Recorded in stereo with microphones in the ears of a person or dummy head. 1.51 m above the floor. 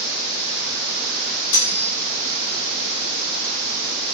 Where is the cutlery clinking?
70° left (ahead or behind), 2 m.